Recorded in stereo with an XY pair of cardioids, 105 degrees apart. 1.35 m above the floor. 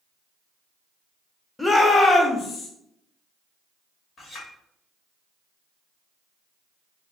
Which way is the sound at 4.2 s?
55° left.